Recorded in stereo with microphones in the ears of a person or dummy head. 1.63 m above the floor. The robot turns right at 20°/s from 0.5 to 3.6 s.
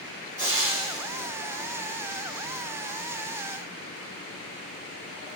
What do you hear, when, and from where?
0.4 s frying: 15° right (ahead or behind), 1.7 m; by 1.3 s 30° right (ahead or behind), 1.7 m